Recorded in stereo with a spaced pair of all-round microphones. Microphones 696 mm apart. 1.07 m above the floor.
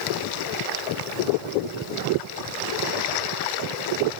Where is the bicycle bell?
No bicycle bell in this recording.